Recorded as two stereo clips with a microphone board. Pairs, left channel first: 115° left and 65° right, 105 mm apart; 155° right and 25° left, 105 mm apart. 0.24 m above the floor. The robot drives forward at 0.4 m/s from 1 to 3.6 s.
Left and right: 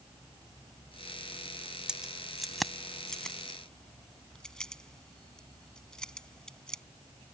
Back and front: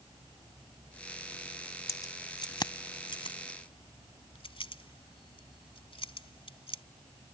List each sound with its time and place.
1.9 s keys jangling: 145° right; by 6.8 s 165° right